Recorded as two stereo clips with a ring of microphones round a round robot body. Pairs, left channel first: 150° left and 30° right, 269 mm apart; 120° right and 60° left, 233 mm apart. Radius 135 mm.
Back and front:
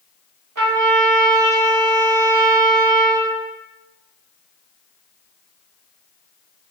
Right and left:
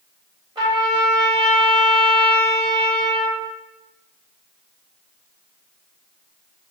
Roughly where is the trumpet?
Ahead.